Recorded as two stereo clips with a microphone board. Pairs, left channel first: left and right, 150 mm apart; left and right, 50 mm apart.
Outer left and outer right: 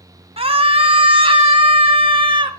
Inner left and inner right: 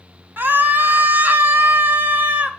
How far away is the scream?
About 1.6 m.